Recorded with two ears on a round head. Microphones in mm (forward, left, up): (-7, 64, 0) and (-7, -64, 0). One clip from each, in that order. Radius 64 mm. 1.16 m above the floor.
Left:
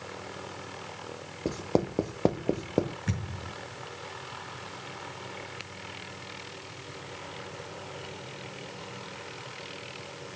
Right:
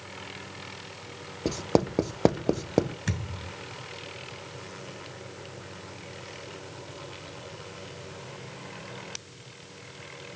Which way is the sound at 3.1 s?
75° right (ahead or behind).